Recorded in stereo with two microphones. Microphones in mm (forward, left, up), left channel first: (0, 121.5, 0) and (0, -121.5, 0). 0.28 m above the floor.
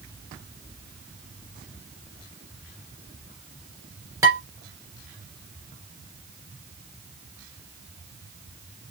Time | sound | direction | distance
4.2 | dishes clattering | 10° right (ahead or behind) | 3 m